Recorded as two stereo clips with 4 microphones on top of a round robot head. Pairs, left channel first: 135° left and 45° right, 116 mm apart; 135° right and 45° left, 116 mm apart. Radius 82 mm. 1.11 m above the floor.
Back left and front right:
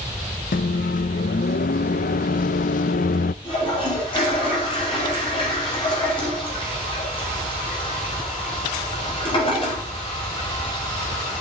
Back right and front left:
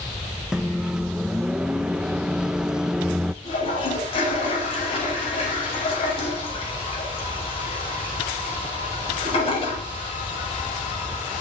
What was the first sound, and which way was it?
A microwave, 130° left.